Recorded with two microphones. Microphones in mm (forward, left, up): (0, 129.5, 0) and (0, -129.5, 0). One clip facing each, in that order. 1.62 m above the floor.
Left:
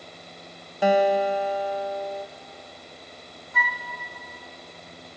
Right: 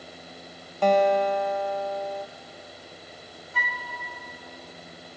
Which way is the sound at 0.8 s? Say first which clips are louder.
Even; 10° left (ahead or behind).